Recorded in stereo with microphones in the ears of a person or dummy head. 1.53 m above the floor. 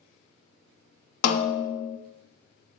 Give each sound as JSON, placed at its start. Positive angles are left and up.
{"t": 1.2, "sound": "a snare drum", "side_deg": 60, "distance_m": 0.5}